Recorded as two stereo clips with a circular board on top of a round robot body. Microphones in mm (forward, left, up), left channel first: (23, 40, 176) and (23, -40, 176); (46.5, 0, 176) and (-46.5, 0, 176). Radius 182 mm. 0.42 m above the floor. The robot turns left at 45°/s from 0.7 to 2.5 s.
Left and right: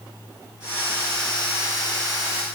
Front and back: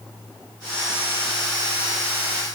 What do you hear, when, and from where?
Only background noise.